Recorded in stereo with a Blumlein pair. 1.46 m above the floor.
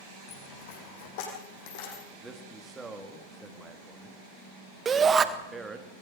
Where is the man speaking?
10° right, 3 m.